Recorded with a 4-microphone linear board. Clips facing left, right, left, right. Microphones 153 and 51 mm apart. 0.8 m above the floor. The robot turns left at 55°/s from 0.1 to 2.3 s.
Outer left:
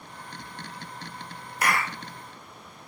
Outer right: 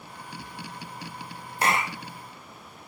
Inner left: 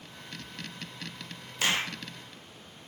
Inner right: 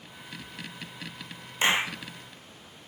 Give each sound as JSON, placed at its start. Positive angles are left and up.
{"t": 1.6, "sound": "a clap", "side_deg": -25, "distance_m": 0.9}